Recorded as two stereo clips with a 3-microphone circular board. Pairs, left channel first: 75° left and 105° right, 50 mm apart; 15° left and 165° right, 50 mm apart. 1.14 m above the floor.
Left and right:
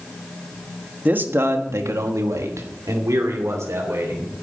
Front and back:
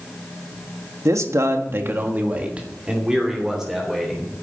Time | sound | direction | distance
1.1 | a man speaking | 160° right | 1.5 m